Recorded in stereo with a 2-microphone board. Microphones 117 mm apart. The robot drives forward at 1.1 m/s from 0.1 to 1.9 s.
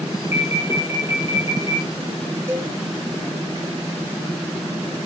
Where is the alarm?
70° left (ahead or behind), 4 m; by 1.9 s 50° left (ahead or behind), 5 m.